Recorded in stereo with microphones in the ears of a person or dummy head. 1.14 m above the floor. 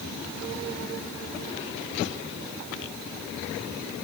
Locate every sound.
Only background noise.